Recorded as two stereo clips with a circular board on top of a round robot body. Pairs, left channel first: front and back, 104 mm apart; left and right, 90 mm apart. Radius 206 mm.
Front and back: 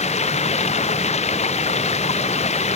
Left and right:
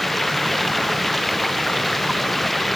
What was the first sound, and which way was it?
Running water, straight ahead.